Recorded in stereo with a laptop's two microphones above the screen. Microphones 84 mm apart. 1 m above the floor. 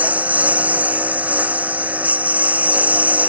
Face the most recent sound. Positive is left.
turn(degrees=-15)  # may be behind; listen again after turning